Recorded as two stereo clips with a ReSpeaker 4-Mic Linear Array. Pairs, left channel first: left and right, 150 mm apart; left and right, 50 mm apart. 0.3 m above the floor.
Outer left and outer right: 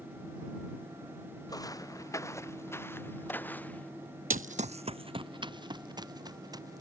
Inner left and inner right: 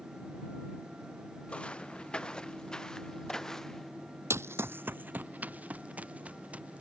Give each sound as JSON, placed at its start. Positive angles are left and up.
{"t": 1.5, "sound": "footsteps", "side_deg": 25}
{"t": 4.3, "sound": "running footsteps", "side_deg": -65}